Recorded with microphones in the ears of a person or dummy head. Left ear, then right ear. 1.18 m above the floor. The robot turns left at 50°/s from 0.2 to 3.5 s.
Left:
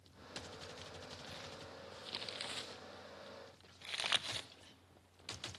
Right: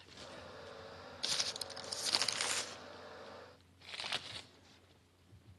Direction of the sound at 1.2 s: 75° right (ahead or behind).